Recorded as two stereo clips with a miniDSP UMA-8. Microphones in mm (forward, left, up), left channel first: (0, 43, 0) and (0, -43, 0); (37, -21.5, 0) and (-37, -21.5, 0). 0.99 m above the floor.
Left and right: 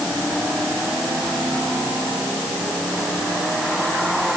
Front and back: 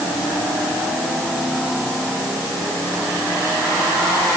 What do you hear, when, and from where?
Only background noise.